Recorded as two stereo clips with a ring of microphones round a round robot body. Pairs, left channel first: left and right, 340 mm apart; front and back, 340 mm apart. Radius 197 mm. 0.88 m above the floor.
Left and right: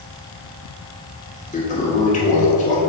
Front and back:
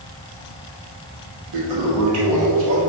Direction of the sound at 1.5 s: 160° left.